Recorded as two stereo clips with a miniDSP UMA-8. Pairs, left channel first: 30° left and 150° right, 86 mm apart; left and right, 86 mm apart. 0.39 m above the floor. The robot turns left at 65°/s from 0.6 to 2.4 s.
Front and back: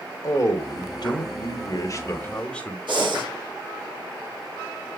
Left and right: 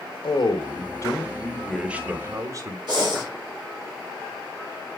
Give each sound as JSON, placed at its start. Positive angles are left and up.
{"t": 0.2, "sound": "a man speaking", "azimuth_deg": 70, "distance_m": 1.3}
{"t": 2.9, "sound": "breathing", "azimuth_deg": -125, "distance_m": 6.5}